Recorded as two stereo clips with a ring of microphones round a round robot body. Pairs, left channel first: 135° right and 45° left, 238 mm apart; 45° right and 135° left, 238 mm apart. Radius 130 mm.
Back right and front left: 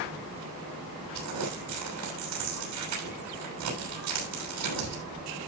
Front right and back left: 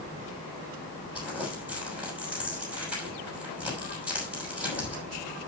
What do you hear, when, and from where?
1.1 s crumpling: 50° left, 7 m